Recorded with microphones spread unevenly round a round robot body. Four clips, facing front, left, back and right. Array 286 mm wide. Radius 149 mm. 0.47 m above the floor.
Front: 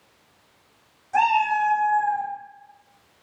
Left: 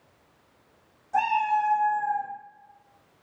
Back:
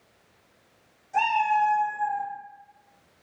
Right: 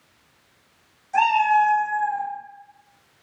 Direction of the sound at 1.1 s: 10° left.